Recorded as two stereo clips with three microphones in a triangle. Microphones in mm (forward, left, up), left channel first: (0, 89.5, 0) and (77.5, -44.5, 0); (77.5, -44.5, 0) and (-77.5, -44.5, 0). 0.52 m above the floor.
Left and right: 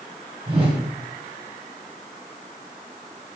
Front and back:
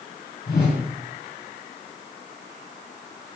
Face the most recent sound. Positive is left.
turn(degrees=-5)